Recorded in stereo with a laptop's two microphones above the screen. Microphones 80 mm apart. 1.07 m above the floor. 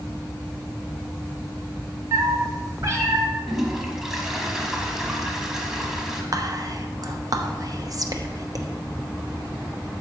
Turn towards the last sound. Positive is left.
turn(degrees=-50)  # may be behind; listen again after turning